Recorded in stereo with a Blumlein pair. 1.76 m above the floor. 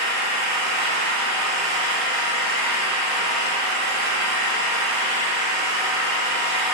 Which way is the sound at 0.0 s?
35° right.